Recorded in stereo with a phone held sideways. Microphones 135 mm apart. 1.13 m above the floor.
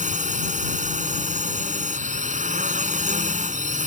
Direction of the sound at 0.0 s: 65° right (ahead or behind).